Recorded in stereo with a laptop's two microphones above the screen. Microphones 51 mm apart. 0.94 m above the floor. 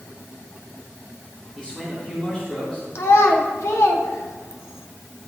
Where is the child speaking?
70° left (ahead or behind), 1.5 m.